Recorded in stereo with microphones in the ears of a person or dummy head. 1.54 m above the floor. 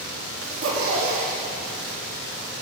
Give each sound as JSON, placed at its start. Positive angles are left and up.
{"t": 0.4, "sound": "a zipper", "side_deg": -70, "distance_m": 1.6}